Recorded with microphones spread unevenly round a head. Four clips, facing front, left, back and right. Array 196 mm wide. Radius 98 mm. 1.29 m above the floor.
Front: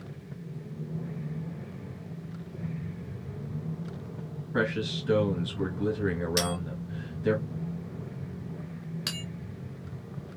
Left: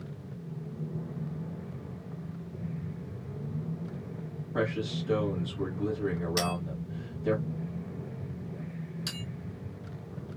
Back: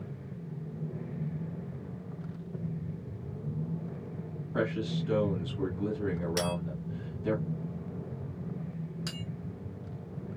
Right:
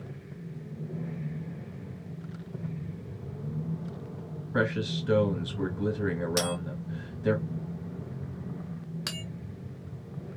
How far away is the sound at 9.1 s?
About 1.3 m.